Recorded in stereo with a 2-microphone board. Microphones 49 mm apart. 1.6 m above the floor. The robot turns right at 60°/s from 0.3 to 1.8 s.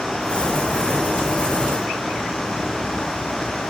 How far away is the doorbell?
I don't hear a doorbell.